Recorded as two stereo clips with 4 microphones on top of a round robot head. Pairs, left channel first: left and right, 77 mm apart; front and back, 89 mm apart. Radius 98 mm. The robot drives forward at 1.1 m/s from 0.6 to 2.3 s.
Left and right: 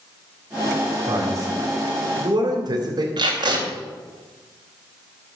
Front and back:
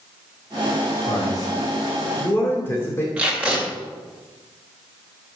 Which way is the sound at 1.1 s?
40° right.